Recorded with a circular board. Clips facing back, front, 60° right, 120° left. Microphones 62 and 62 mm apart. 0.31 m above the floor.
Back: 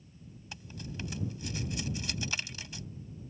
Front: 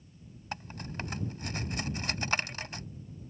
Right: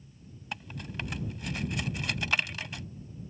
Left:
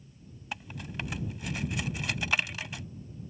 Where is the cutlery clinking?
30° left.